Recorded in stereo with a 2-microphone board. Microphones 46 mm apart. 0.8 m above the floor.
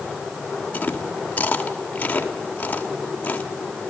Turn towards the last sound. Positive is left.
turn(degrees=35)  # may be behind; listen again after turning